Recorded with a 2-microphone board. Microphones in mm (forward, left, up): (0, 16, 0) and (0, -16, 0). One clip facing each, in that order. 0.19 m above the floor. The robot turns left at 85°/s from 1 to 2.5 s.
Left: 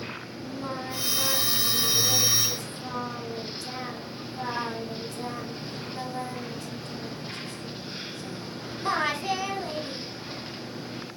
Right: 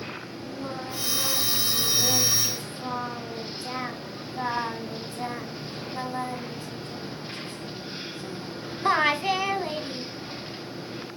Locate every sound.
0.4 s singing: 45° left, 1.3 m; by 10.1 s 85° right, 1.3 m